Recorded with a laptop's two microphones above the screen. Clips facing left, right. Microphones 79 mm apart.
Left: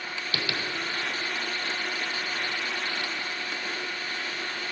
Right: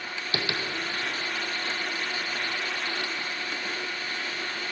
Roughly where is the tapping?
Right.